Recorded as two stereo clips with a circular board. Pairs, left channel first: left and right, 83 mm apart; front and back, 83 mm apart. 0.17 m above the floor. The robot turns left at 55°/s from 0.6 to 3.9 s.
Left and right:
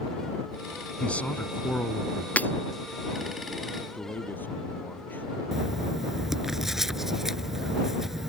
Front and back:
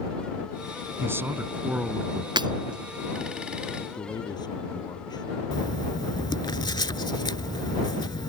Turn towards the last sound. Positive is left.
turn(degrees=-5)